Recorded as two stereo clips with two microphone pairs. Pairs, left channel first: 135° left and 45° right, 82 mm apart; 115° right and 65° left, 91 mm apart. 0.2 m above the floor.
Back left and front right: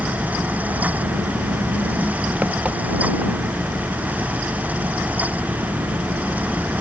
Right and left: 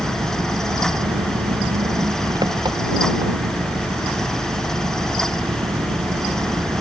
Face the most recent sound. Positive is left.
turn(degrees=25)